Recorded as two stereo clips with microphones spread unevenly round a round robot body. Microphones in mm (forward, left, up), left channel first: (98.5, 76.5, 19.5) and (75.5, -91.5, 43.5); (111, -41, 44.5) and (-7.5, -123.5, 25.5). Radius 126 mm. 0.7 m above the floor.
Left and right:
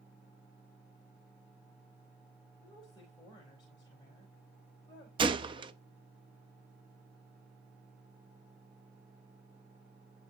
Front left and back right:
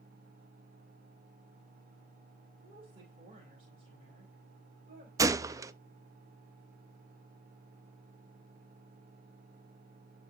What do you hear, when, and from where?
2.6 s a woman speaking: 155° left, 4 m
5.2 s a gunshot: 145° right, 0.6 m